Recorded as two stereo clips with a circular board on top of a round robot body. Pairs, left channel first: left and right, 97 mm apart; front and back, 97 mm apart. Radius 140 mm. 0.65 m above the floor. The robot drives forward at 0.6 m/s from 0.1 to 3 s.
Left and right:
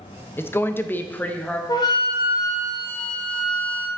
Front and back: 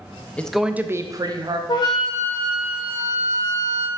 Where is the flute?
40° left, 0.7 m; by 3.9 s 120° left, 0.6 m.